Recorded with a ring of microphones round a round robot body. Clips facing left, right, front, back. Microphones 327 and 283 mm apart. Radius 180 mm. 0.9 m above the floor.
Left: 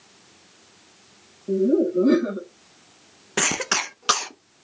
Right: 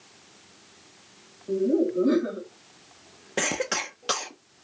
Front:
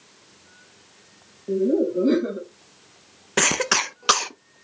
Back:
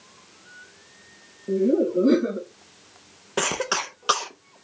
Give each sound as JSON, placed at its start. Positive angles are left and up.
{"t": 1.5, "sound": "laughter", "azimuth_deg": 110, "distance_m": 1.5}
{"t": 3.4, "sound": "a cough", "azimuth_deg": 40, "distance_m": 0.5}